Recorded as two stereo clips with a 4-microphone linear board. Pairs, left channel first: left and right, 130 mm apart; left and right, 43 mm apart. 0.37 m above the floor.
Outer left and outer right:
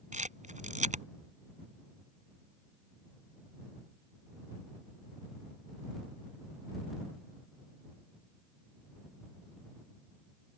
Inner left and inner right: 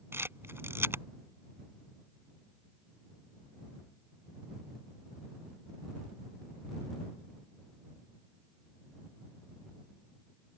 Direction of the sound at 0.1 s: 70° right (ahead or behind).